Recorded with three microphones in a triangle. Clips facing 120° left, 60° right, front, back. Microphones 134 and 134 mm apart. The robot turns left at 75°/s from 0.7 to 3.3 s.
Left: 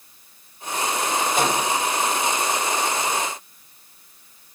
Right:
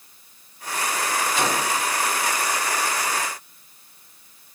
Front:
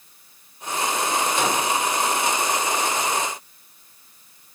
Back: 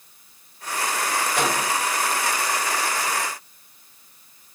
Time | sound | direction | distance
1.4 | a microwave | 160° left | 5.5 m